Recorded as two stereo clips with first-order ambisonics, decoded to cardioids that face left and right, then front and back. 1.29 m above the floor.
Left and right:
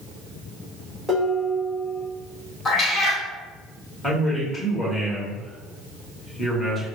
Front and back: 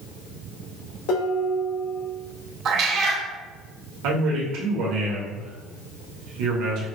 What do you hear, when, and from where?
1.1 s dishes clattering: 5° right, 1.0 m
2.6 s a cat meowing: 150° left, 0.6 m
4.0 s a man speaking: 175° left, 1.4 m